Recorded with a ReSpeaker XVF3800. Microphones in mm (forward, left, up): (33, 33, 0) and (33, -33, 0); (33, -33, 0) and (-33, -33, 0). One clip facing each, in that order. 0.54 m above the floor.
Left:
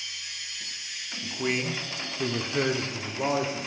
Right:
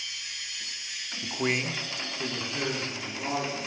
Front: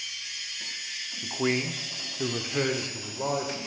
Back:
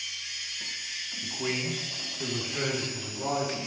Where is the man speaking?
45° right, 0.8 m; by 3.6 s 60° left, 1.5 m.